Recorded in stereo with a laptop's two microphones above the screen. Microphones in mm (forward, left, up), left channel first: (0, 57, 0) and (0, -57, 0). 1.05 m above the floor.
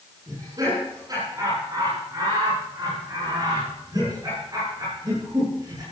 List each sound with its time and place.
0.3 s laughter: 35° right (ahead or behind), 10 m